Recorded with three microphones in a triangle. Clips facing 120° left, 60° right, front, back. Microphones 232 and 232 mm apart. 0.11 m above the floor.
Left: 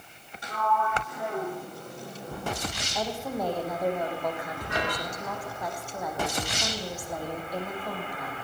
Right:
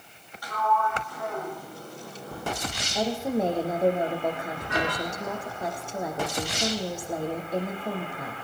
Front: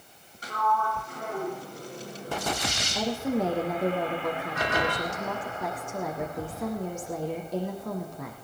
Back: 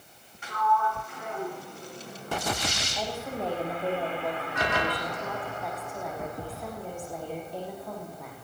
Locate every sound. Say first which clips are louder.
0.4 s a sliding door: right 1 dB, back 1 dB; 55° left, 9 m
3.0 s a woman speaking: right 6 dB, front 9 dB; 5° left, 6.5 m